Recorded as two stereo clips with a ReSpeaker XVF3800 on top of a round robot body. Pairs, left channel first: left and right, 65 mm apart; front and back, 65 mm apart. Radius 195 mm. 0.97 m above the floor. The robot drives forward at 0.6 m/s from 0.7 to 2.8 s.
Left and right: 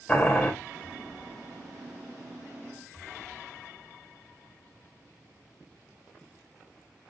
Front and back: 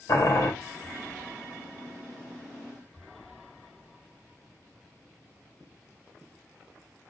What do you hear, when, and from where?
0.1 s boiling: 15° left, 1.4 m